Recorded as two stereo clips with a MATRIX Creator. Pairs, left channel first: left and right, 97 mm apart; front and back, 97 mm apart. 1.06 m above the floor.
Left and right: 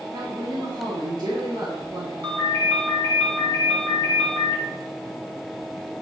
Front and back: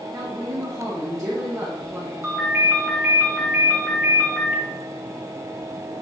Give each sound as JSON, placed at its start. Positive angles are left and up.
{"t": 0.1, "sound": "a woman speaking", "azimuth_deg": -130, "distance_m": 2.0}
{"t": 2.2, "sound": "a ringtone", "azimuth_deg": -120, "distance_m": 2.5}